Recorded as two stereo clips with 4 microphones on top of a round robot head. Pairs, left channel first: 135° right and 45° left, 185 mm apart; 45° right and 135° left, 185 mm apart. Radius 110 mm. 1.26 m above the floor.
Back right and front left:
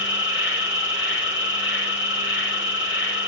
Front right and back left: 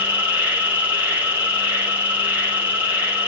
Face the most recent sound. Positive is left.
turn(degrees=-145)